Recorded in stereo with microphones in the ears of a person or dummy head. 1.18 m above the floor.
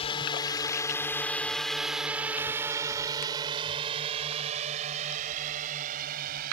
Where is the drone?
30° left (ahead or behind); by 6.5 s 50° right (ahead or behind).